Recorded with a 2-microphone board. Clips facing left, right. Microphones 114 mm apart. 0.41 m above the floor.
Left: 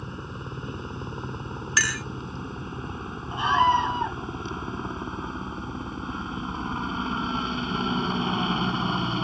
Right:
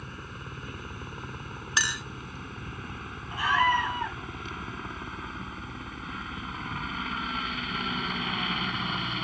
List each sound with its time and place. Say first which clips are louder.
0.0 s a helicopter: left 5 dB; 25° left (ahead or behind); by 9.2 s 30° left (ahead or behind)
1.8 s a clink: left 3 dB; 20° right (ahead or behind)
3.3 s a scream: left 4 dB; 25° left (ahead or behind)